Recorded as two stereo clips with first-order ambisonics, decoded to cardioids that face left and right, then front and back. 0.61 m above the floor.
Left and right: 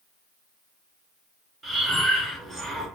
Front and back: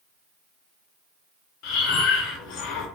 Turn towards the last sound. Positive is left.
turn(degrees=-15)